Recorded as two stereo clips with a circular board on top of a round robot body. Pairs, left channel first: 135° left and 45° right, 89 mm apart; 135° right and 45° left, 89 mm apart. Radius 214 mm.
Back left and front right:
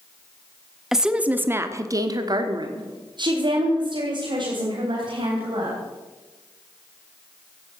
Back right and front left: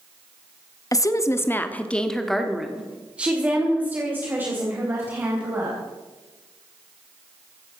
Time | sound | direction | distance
0.9 | a woman speaking | 130° right | 1.5 m